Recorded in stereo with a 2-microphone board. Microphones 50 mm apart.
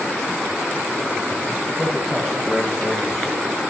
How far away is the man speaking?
About 8 m.